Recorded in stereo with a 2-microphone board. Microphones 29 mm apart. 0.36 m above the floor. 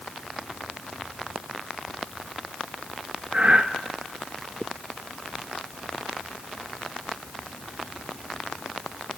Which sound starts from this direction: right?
Breathing, at 3.3 s.